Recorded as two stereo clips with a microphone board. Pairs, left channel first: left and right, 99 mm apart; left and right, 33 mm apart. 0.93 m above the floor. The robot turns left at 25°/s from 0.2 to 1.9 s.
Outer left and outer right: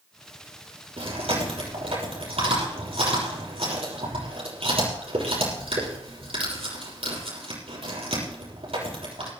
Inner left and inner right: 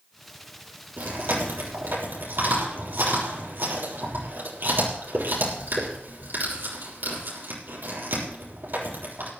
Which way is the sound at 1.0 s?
70° right (ahead or behind).